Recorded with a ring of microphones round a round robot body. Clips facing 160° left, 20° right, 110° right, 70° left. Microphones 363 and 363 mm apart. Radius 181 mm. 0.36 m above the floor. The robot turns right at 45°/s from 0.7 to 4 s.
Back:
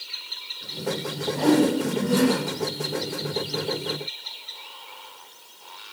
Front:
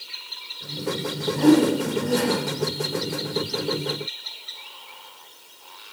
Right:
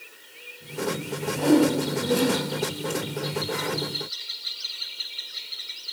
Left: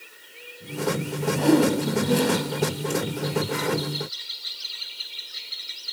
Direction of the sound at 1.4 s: 45° left.